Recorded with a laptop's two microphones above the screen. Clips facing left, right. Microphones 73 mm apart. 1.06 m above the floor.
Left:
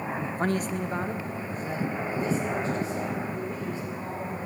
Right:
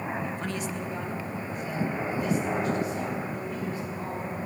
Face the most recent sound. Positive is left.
turn(degrees=30)  # may be behind; listen again after turning